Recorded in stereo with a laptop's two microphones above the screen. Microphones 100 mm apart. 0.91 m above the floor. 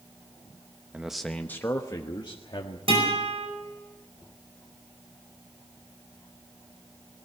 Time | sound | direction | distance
0.9 | a man speaking | 15° right (ahead or behind) | 0.9 m
2.9 | a guitar | 70° right (ahead or behind) | 5 m